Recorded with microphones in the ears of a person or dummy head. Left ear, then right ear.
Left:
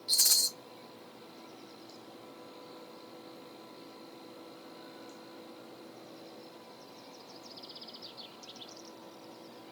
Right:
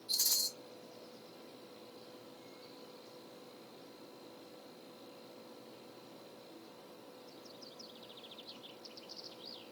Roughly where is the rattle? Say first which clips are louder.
Left 7 dB; left.